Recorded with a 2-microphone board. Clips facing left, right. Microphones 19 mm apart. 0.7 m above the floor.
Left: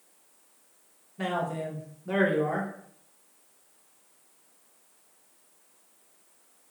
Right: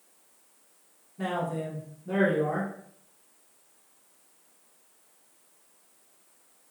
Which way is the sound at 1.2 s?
30° left (ahead or behind).